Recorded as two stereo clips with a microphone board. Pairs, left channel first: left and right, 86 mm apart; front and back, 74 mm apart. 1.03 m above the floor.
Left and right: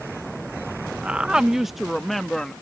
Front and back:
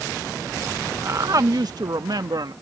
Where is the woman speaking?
160° right; by 2.5 s 175° left.